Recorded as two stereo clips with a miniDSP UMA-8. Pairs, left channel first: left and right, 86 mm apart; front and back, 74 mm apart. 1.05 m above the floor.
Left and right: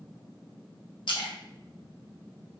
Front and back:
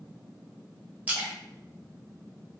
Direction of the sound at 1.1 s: 110° left.